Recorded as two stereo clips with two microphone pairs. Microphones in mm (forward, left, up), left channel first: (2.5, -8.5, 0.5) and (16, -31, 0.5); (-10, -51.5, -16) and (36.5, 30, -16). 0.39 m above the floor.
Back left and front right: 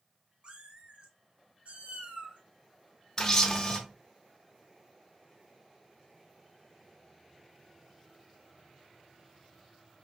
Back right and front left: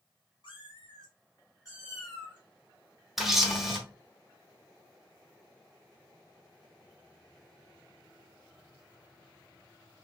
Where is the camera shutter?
145° left, 0.9 m.